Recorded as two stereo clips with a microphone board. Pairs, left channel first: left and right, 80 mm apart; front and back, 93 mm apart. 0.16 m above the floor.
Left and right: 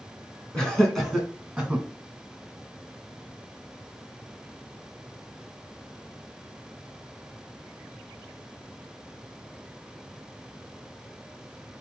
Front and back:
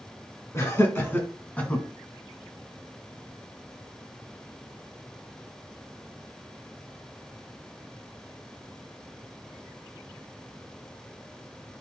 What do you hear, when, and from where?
0.5 s laughter: 20° left, 1.9 m; by 1.9 s 45° right, 1.6 m